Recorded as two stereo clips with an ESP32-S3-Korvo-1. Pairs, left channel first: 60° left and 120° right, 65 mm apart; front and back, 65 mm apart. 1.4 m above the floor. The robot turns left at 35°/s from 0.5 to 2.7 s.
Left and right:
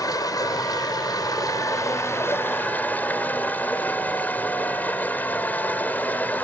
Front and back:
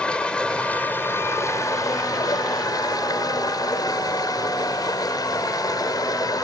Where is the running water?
75° left; by 6.4 s 5° right.